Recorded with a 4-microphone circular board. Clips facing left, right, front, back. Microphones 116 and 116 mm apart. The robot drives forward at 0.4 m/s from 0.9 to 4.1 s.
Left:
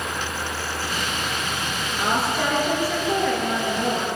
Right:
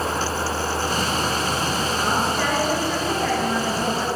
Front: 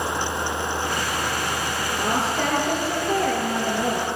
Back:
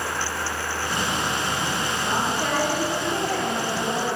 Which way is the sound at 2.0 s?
5° left.